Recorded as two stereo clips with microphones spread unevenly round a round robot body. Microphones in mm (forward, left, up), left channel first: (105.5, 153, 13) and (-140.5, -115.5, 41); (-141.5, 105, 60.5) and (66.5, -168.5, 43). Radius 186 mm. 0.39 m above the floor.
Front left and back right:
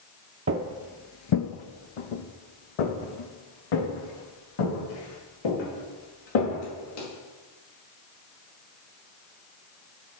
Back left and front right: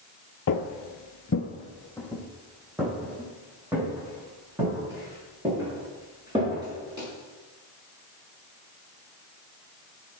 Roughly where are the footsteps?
Behind.